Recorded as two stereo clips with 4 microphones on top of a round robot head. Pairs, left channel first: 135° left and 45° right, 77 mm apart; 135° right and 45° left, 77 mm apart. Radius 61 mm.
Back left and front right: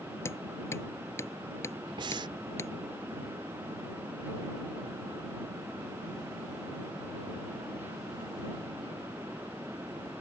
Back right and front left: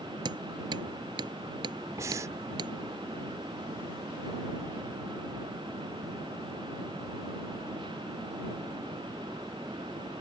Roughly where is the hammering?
Left.